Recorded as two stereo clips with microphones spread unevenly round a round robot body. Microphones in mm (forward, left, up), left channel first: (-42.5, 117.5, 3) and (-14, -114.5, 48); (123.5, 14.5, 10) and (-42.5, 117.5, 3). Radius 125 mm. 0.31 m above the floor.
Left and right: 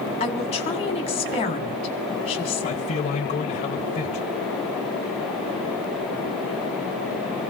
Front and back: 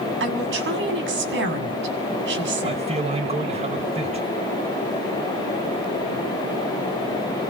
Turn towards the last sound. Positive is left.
turn(degrees=115)